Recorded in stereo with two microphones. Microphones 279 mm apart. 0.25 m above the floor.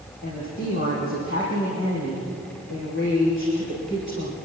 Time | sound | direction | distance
0.2 | a woman speaking | 45° left (ahead or behind) | 7 m